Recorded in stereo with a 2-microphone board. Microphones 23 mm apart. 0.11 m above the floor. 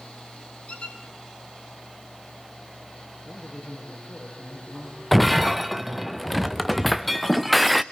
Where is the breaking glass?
5° left (ahead or behind), 0.8 m.